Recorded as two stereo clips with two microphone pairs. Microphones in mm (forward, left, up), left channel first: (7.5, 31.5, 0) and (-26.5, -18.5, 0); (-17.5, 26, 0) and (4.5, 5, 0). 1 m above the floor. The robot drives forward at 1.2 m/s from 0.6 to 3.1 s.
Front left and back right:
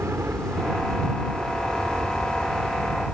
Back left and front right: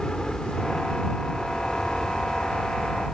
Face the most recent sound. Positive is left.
turn(degrees=-165)